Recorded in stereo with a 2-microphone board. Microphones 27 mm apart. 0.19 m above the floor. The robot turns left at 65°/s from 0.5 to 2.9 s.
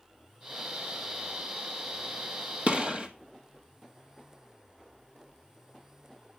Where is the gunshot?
50° right (ahead or behind), 1.6 m; by 3.1 s 35° right (ahead or behind), 1.6 m.